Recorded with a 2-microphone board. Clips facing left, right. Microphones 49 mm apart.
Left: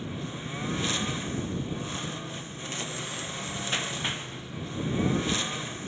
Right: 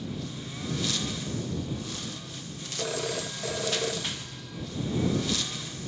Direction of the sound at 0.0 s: 25° left (ahead or behind).